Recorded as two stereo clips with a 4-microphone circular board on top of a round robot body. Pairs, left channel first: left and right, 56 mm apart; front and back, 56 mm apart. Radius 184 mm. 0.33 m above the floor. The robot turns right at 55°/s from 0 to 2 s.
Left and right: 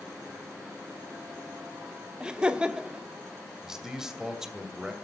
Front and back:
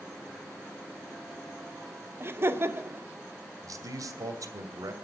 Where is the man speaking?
170° right, 2.5 m.